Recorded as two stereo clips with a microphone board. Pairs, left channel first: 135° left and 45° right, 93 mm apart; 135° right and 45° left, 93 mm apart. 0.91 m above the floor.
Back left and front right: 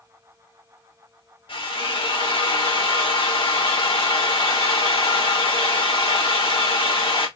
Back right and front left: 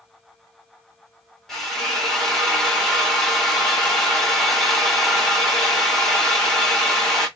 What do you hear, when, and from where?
1.5 s a drill: 140° left, 2.5 m